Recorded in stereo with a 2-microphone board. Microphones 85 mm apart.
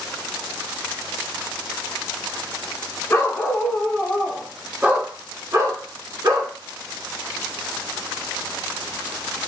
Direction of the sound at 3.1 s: 30° left (ahead or behind).